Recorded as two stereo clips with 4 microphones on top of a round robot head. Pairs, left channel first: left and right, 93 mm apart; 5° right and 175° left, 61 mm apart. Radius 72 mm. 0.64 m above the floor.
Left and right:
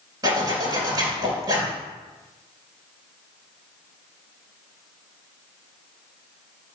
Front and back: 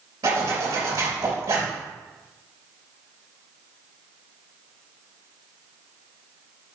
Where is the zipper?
135° right, 3 m.